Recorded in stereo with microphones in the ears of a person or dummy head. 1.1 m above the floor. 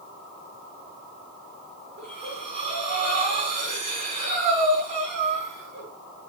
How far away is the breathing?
About 3.5 m.